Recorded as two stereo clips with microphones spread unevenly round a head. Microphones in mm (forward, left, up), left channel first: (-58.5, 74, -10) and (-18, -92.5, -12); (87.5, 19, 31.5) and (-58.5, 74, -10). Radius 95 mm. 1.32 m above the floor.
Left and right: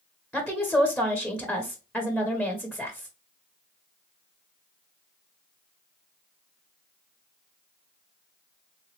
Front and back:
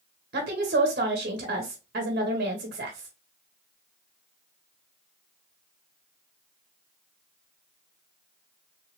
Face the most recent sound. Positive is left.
turn(degrees=-165)